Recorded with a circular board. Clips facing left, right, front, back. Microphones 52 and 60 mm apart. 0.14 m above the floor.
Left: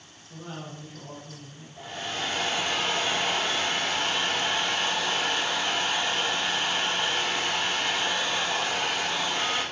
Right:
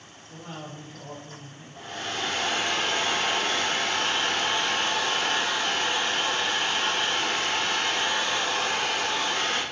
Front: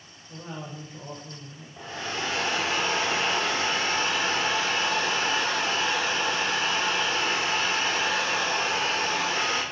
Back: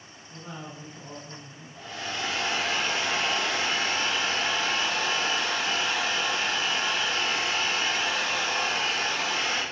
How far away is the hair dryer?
About 5 m.